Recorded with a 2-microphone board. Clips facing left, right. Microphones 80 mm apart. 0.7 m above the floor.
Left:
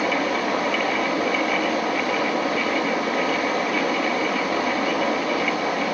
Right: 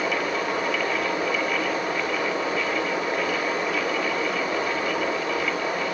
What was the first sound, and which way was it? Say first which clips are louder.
Running water: left 3 dB; 85° left.